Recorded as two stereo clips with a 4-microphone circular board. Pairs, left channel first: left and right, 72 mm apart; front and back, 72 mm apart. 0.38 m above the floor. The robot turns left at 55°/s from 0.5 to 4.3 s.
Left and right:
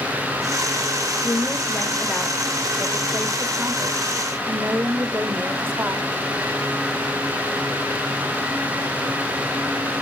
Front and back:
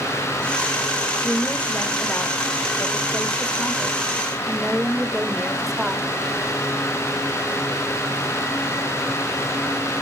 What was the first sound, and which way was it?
A woman speaking, 70° left.